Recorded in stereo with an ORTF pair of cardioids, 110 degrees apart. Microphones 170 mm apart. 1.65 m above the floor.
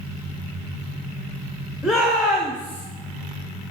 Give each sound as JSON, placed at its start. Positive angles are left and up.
{"t": 1.8, "sound": "a shout", "azimuth_deg": 0, "distance_m": 1.6}